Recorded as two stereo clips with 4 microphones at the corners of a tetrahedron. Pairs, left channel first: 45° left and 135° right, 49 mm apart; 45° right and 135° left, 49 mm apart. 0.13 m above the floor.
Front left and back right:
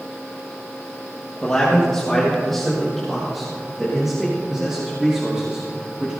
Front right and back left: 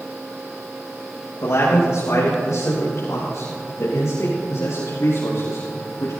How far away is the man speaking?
About 4 m.